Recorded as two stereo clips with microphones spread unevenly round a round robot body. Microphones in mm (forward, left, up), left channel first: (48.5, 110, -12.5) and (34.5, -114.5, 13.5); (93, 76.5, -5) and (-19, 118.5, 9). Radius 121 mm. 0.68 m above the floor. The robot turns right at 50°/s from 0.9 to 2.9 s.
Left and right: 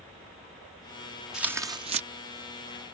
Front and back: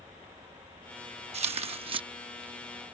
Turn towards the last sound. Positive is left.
turn(degrees=-110)